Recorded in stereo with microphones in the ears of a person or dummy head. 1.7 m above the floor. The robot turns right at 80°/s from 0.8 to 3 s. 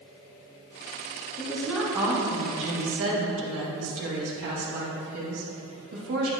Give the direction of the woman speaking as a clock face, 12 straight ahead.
7 o'clock.